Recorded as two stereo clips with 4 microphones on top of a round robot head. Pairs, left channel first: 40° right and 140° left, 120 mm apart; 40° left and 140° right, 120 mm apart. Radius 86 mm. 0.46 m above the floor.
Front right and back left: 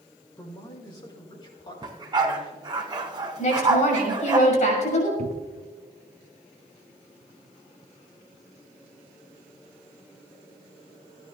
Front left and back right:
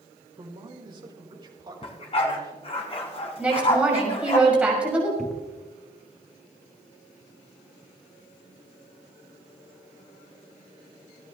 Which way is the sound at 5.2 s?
125° left.